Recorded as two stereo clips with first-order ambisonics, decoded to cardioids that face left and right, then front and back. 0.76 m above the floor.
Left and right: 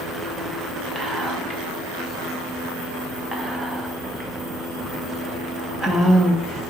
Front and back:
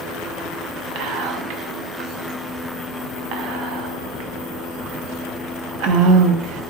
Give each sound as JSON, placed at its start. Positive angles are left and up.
{"t": 0.9, "sound": "whispering", "azimuth_deg": 180, "distance_m": 0.6}